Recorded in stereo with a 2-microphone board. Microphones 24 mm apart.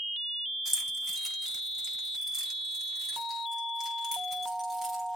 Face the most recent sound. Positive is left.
turn(degrees=-25)  # may be behind; listen again after turning